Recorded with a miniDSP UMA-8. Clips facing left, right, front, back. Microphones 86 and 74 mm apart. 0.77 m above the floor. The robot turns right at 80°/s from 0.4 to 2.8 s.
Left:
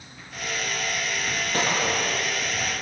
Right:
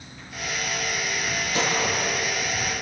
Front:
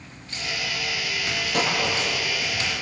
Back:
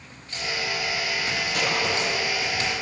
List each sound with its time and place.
1.5 s a gunshot: 45° left, 9 m; by 2.2 s 100° left, 9 m